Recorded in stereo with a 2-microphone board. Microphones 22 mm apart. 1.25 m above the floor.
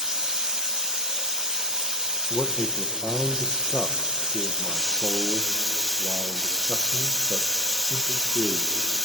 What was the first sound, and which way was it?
Running water, 30° right (ahead or behind).